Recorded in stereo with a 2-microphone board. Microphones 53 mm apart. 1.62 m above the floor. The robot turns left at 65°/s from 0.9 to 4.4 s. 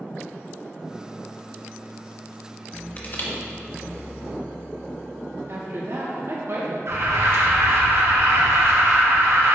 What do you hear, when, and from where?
3.0 s crushing: 30° left (ahead or behind), 1.4 m; by 3.3 s 50° left (ahead or behind), 1.4 m
5.5 s a woman speaking: 55° right (ahead or behind), 1.9 m
6.9 s an alarm: 55° right (ahead or behind), 1.5 m